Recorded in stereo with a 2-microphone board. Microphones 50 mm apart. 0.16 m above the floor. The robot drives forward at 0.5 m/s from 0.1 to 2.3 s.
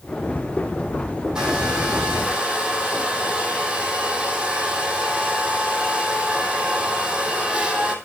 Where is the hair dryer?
15° right (ahead or behind), 3 m; by 8.0 s 20° right (ahead or behind), 2.5 m.